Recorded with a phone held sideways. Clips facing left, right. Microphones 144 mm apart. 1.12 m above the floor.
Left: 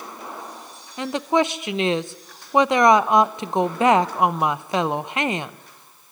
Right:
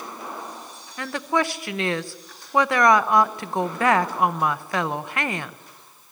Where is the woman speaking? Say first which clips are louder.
Left 4 dB; 20° left (ahead or behind), 0.9 m.